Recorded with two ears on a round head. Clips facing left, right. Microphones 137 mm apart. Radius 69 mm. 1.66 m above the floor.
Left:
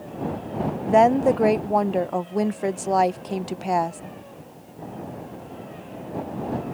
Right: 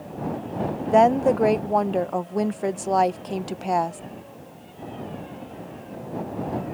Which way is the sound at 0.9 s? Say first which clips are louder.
Even; centre (ahead or behind).